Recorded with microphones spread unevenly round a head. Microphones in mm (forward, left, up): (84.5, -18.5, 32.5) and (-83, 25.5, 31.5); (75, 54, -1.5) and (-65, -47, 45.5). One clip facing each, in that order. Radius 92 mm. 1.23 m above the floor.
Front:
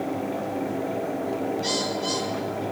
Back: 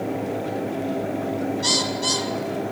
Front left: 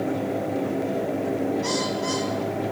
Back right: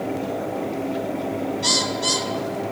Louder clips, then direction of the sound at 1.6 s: Back 1 dB, even; 170° left.